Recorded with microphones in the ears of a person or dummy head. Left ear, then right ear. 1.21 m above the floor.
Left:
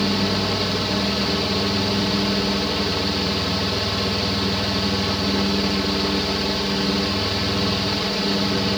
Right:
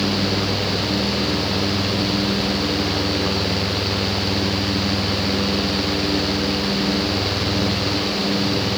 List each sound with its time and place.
Only background noise.